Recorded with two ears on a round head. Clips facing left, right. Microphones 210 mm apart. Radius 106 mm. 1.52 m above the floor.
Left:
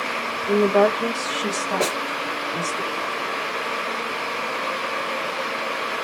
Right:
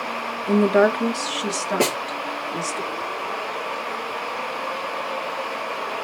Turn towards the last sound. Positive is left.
turn(degrees=-40)  # may be behind; listen again after turning